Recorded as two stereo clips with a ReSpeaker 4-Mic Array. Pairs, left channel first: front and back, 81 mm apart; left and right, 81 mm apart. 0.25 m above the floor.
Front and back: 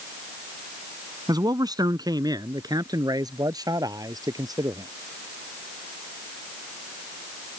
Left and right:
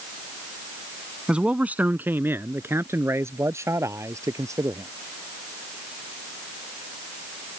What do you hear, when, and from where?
1.3 s a man speaking: 165° right; by 4.9 s 140° right